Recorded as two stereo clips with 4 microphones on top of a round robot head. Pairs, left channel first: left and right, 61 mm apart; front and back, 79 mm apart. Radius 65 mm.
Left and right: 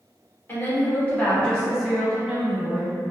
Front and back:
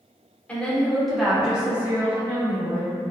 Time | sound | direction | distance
0.5 | a woman speaking | 65° left | 1.0 m